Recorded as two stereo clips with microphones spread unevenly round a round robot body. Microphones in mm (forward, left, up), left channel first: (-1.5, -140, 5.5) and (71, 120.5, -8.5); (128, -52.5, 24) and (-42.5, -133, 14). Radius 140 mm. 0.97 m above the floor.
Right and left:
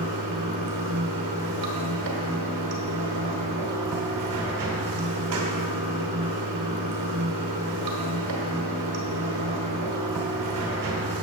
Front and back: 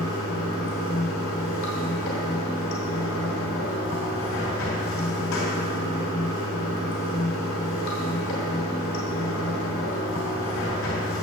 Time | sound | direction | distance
0.0 | running water | 60° left | 1.2 m